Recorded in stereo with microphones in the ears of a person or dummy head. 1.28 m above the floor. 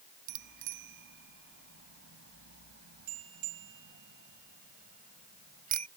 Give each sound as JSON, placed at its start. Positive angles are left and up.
{"t": 0.3, "sound": "a bicycle bell", "side_deg": -65}